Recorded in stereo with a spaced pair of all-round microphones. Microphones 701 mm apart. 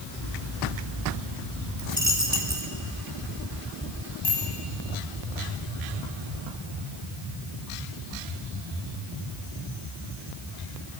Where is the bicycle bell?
35° left (ahead or behind), 8.5 m.